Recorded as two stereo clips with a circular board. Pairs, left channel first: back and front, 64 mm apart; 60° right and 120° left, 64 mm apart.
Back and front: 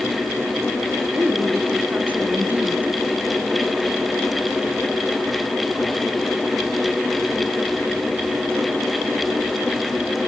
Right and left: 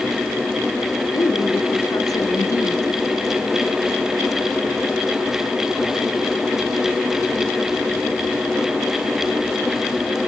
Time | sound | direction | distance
1.1 | a woman speaking | 65° right | 3.5 m